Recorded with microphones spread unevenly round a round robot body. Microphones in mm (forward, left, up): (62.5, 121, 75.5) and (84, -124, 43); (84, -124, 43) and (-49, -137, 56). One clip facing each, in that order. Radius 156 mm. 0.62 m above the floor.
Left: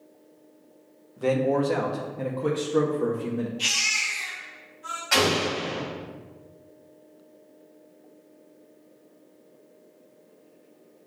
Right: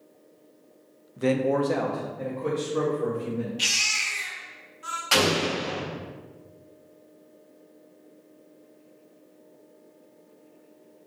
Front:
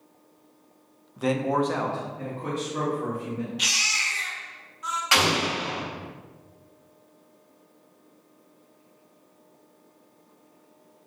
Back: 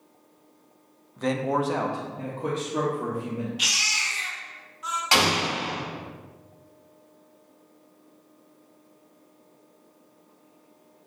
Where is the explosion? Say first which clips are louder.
Even, even; 115° right, 2.0 m.